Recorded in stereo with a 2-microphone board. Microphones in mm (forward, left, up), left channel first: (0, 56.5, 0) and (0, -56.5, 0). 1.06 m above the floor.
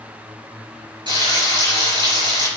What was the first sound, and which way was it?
Frying, 45° right (ahead or behind).